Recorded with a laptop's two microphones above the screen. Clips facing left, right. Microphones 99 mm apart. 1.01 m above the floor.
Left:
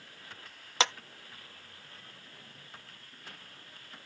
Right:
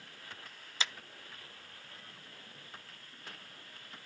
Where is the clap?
70° left (ahead or behind).